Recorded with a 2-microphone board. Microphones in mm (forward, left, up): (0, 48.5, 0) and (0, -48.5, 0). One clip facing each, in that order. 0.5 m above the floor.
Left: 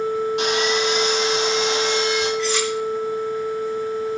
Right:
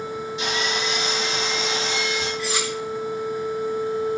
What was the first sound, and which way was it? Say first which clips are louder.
Sawing: left 6 dB; 65° left (ahead or behind).